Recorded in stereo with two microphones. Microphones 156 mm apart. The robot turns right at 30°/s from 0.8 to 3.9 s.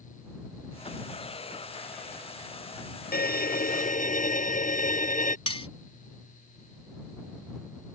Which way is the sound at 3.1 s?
75° left (ahead or behind).